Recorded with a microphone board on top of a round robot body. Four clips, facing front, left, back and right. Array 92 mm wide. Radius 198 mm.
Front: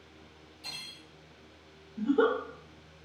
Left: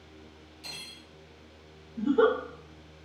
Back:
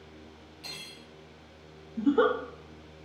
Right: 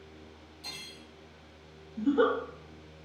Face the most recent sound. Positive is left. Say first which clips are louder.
# left 2 dB, back 2 dB
turn(degrees=-170)